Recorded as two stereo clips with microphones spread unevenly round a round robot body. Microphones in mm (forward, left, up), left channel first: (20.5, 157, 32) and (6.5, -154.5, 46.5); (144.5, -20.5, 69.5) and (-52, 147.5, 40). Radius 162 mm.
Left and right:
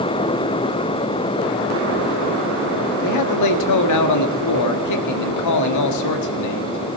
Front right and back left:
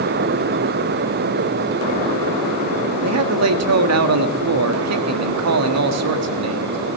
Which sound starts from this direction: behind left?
A man speaking, at 3.0 s.